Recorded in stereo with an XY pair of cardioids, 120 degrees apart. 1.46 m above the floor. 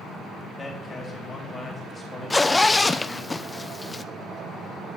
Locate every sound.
0.6 s a man speaking: 20° left, 4 m
2.3 s a zipper: 10° left, 0.5 m